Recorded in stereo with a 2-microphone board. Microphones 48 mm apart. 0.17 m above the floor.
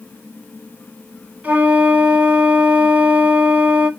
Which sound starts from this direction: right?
A flute, at 1.4 s.